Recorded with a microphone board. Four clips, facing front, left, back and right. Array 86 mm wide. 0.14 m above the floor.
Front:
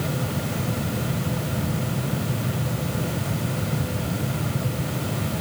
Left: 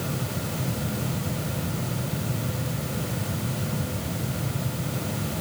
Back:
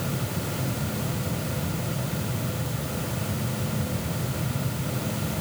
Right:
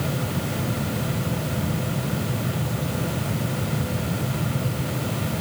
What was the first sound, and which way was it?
Only background noise.